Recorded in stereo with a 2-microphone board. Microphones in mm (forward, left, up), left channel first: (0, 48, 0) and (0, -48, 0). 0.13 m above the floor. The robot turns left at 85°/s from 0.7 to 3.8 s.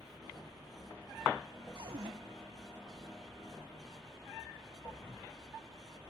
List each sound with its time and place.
1.8 s a cupboard door: 65° right, 4 m; by 2.1 s 95° right, 4 m